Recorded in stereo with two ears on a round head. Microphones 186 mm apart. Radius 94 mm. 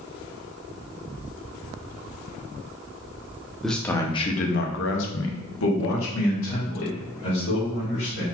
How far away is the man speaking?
About 0.9 m.